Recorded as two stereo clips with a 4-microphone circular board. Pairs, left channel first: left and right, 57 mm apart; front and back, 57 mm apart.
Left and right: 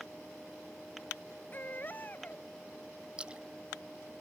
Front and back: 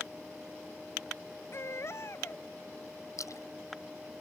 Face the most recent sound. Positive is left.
turn(degrees=-20)